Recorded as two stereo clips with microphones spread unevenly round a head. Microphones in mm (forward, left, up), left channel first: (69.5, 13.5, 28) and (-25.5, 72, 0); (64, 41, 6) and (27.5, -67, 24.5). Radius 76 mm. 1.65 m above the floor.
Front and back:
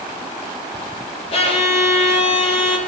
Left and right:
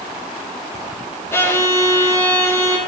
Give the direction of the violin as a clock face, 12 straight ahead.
12 o'clock.